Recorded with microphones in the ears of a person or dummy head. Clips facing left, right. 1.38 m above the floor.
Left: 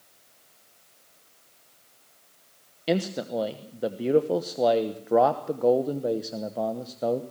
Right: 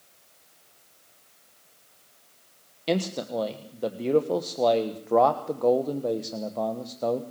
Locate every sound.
2.9 s a man speaking: 10° left (ahead or behind), 1.0 m